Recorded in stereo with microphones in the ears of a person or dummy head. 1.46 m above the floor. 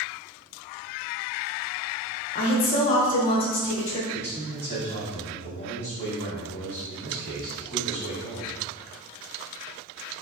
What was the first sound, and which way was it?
A woman speaking, 40° left (ahead or behind).